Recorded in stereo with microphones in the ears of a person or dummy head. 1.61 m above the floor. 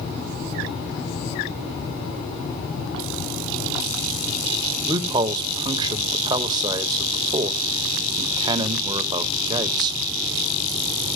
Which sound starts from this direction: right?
A man speaking, at 4.9 s.